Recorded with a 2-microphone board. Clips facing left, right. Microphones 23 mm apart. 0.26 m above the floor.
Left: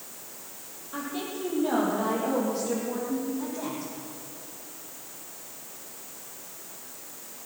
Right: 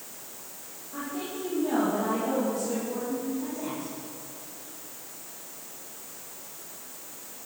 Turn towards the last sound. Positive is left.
turn(degrees=60)  # may be behind; listen again after turning